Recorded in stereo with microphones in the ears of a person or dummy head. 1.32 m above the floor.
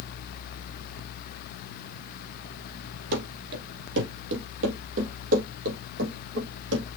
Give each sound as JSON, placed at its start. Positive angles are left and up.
{"t": 3.1, "sound": "running footsteps", "side_deg": -60, "distance_m": 2.5}